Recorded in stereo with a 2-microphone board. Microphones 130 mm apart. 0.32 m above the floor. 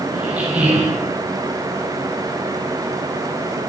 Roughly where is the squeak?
Centre.